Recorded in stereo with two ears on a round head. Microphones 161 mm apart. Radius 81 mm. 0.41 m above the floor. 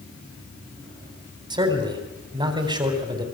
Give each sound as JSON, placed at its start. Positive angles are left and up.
{"t": 1.5, "sound": "a man speaking", "side_deg": -25, "distance_m": 3.5}